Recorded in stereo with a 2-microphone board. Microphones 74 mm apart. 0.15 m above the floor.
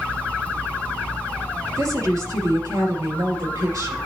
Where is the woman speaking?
55° right (ahead or behind), 3.5 m.